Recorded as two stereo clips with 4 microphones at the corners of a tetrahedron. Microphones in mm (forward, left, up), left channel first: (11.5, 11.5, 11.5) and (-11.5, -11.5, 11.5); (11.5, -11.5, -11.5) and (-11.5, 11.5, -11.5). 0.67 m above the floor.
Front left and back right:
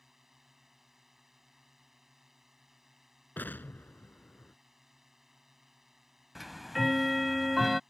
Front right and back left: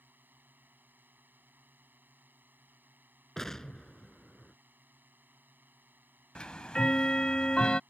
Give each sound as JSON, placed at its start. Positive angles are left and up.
{"t": 0.0, "sound": "a drone", "azimuth_deg": 145}
{"t": 3.4, "sound": "an explosion", "azimuth_deg": 30}
{"t": 6.3, "sound": "ticking", "azimuth_deg": -55}